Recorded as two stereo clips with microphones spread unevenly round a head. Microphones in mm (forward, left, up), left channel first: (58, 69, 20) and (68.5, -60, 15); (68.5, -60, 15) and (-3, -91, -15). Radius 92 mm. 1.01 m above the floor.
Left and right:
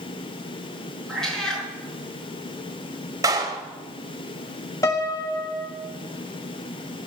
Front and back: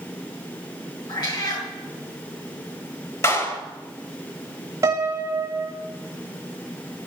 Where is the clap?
20° right, 4.5 m.